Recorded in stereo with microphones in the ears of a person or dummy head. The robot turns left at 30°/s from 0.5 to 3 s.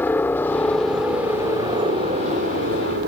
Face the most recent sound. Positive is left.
turn(degrees=-65)